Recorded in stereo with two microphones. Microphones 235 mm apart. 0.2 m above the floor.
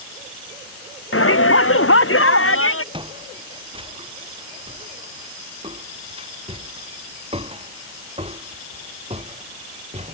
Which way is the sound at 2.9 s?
20° right (ahead or behind).